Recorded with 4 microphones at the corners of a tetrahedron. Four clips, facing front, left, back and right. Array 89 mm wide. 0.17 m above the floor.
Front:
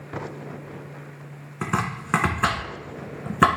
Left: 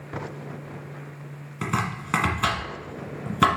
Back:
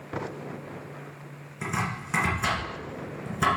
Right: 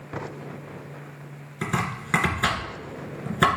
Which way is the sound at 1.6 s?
Straight ahead.